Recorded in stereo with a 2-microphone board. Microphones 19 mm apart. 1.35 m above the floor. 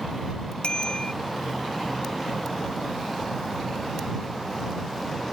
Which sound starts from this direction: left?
A bicycle bell, at 0.6 s.